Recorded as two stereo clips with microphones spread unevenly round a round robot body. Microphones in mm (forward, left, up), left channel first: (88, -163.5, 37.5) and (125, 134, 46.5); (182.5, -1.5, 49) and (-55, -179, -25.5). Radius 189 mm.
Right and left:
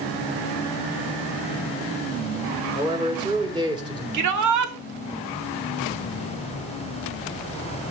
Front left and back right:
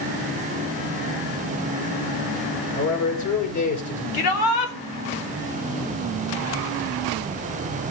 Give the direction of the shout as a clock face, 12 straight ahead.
10 o'clock.